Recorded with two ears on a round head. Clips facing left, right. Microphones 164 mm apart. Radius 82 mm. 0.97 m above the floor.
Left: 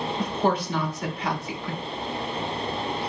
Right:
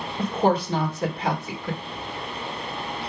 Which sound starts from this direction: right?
A woman speaking, at 0.2 s.